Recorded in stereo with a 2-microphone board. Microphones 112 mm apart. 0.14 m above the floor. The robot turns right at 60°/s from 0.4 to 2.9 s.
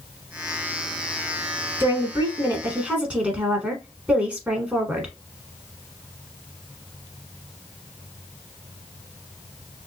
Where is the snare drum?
I don't hear a snare drum.